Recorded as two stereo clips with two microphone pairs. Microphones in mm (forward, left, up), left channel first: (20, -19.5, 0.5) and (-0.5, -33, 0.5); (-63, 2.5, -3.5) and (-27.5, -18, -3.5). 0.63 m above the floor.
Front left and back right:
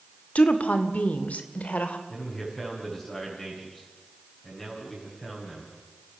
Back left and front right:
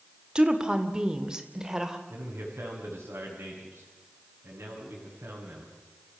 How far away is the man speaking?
About 5.5 m.